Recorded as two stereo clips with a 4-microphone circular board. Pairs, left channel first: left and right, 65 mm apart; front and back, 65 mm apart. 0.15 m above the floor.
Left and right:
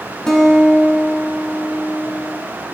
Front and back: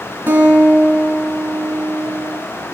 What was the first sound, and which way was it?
A guitar, 165° left.